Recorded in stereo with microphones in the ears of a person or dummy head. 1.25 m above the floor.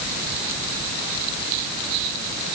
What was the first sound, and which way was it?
Only background noise.